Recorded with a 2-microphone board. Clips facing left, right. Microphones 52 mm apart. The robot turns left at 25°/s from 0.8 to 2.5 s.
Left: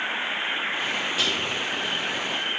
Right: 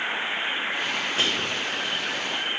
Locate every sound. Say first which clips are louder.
1.2 s whispering: even; 35° right (ahead or behind), 2.5 m; by 1.6 s 45° right (ahead or behind), 2.5 m